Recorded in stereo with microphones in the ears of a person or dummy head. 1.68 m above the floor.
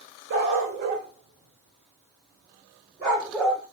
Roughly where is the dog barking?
Right.